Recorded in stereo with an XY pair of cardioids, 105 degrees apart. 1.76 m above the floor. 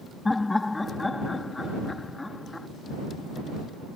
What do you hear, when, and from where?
0.2 s laughter: 20° left